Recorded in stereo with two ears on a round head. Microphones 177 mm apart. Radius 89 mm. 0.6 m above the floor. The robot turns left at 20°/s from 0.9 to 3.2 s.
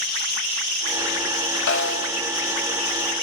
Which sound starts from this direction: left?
A snare drum, at 1.7 s.